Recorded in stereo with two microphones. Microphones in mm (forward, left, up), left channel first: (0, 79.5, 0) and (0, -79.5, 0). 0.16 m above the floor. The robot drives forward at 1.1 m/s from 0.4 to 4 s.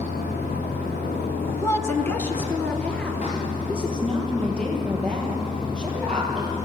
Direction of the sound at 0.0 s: 80° left.